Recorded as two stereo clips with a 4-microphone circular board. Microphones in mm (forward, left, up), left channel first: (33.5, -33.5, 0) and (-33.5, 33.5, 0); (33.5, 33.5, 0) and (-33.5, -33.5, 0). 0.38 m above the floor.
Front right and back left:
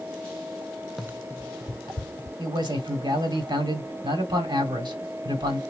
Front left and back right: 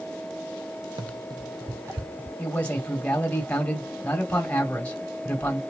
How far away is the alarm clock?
No alarm clock in this recording.